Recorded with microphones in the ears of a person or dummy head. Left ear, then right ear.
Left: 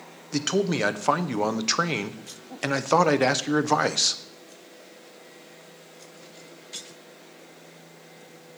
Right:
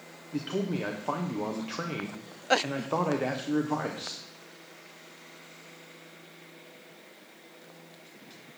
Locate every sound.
0.3 s a man speaking: 75° left (ahead or behind), 0.7 m